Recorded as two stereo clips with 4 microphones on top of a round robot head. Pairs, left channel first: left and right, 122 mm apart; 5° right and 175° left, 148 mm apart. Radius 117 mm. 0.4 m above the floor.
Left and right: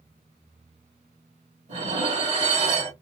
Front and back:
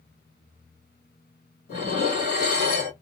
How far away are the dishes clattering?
About 2 m.